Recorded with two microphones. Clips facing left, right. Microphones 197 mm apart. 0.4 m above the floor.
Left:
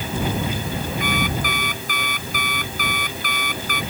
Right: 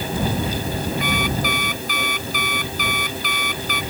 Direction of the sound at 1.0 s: 50° left (ahead or behind).